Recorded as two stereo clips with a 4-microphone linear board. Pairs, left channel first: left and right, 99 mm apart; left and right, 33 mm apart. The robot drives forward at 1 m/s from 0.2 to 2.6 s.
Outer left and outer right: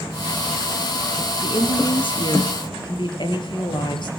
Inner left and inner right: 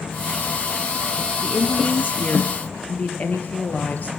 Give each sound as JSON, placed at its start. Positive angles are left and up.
{"t": 1.4, "sound": "a woman speaking", "side_deg": 65, "distance_m": 3.0}